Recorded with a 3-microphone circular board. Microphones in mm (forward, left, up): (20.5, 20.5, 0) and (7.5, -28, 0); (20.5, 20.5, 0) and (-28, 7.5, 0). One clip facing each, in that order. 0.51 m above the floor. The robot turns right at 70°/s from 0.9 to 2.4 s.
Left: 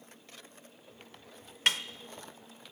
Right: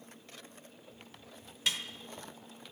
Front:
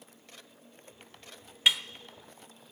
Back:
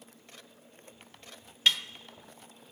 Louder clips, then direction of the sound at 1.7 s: Left 5 dB, front 1 dB; 90° left.